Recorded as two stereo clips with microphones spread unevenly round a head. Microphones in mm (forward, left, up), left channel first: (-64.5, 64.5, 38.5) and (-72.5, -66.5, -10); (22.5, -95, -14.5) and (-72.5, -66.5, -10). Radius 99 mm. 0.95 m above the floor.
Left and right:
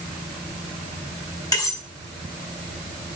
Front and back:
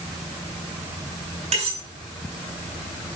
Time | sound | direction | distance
1.5 | cutlery clinking | 150° left | 5.5 m